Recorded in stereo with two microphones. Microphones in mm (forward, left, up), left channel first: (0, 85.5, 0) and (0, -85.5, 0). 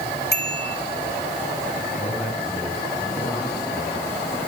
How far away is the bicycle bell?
About 3.5 m.